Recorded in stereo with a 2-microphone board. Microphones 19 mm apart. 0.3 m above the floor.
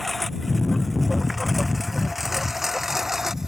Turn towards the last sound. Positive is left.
turn(degrees=-15)  # may be behind; listen again after turning